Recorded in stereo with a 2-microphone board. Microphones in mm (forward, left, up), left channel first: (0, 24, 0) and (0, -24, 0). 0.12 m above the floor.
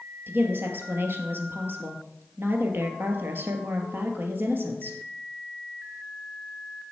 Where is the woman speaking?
50° right (ahead or behind), 2.5 m.